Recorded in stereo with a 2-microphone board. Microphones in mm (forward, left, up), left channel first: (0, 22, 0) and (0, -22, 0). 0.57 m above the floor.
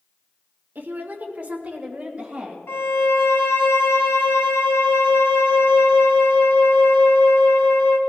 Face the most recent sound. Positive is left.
turn(degrees=75)  # may be behind; listen again after turning